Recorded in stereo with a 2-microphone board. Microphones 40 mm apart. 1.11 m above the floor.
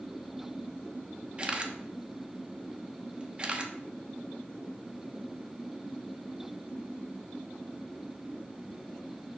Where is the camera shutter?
25° right (ahead or behind), 0.8 m.